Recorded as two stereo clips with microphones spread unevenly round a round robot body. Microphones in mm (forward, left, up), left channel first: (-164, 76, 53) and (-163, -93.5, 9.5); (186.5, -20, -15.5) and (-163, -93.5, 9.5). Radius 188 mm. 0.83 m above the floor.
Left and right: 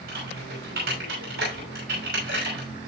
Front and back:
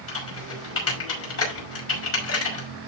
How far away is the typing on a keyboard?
About 5.5 m.